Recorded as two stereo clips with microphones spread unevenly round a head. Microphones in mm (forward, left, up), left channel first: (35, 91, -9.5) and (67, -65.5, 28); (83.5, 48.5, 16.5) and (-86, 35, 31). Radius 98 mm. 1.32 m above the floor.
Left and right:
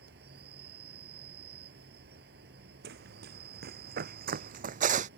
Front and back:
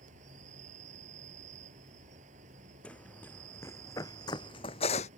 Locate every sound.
0.0 s an insect: 120° right
2.8 s running footsteps: 80° right; by 5.1 s 55° right